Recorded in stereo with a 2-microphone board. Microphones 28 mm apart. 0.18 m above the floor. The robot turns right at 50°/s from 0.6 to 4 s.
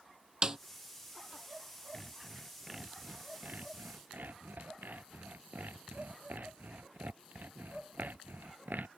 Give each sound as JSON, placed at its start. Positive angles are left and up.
{"t": 0.4, "sound": "a snare drum", "side_deg": -25}
{"t": 1.9, "sound": "sawing", "side_deg": 15}